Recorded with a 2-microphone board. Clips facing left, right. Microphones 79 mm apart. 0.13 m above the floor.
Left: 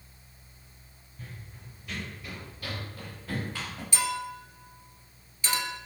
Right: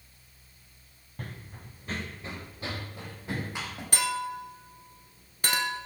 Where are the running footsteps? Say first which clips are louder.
Right 4 dB; 60° right (ahead or behind), 1.2 m; by 3.8 s 15° right (ahead or behind), 4.5 m.